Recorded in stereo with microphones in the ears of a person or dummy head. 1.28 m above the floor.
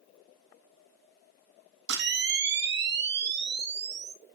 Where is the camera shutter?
65° right (ahead or behind), 1.3 m.